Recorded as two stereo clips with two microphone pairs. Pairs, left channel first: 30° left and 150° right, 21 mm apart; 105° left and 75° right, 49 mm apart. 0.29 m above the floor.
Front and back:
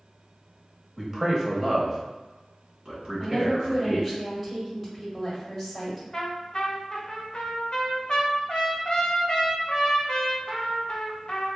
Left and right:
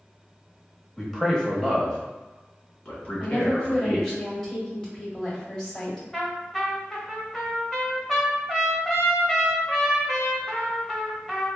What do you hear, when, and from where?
1.0 s a man speaking: 160° right, 0.9 m; by 4.2 s 160° left, 2.5 m
3.2 s a woman speaking: 125° left, 1.4 m
6.1 s a trumpet: 20° left, 0.9 m